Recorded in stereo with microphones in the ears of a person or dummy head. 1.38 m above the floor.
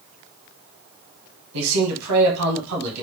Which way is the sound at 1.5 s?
80° right.